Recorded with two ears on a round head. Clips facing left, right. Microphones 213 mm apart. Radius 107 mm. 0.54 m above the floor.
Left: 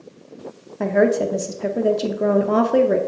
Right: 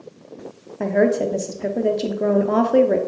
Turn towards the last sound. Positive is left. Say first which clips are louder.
# left 1 dB
turn(degrees=0)  # may be behind; listen again after turning